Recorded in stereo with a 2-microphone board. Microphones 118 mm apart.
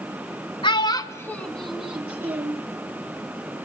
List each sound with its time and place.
0.6 s a child speaking: 45° left (ahead or behind), 0.8 m; by 2.6 s 20° right (ahead or behind), 1.4 m